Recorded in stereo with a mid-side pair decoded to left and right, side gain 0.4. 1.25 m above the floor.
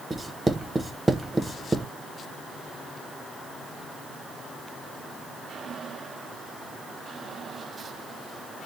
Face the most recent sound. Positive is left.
turn(degrees=-20)